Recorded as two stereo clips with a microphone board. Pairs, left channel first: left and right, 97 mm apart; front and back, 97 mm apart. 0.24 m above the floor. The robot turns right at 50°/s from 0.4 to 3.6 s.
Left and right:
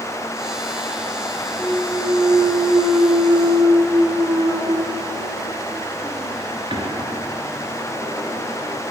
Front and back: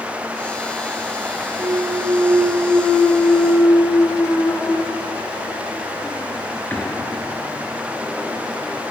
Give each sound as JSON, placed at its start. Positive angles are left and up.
{"t": 1.6, "sound": "a clunk", "azimuth_deg": -170, "distance_m": 1.5}